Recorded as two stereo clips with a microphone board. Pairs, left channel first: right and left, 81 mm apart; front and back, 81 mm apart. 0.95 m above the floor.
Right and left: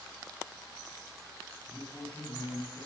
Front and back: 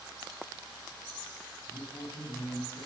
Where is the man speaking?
15° right, 7.5 m.